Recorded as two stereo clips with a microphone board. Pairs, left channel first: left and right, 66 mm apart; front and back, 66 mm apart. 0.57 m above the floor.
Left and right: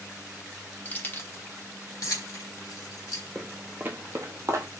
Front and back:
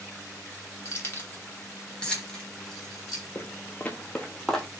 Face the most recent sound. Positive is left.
turn(degrees=-85)